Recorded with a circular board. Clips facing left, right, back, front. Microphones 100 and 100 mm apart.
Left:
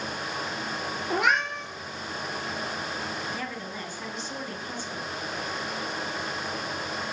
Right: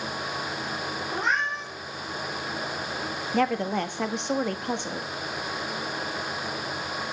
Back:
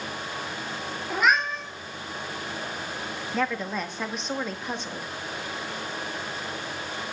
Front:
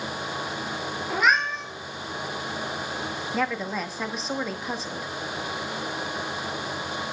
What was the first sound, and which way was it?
A cat meowing, 90° left.